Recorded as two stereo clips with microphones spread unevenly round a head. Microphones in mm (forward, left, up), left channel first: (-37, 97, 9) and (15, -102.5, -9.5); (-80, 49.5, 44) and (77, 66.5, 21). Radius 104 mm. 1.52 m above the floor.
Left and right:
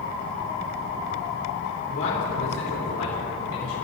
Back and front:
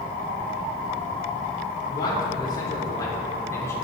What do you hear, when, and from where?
1.9 s a man speaking: 130° left, 5 m; by 3.8 s 115° left, 4.5 m